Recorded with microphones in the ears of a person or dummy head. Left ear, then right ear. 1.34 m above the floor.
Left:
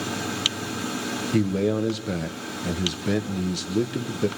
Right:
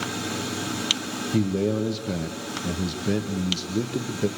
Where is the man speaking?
15° left (ahead or behind), 0.9 m.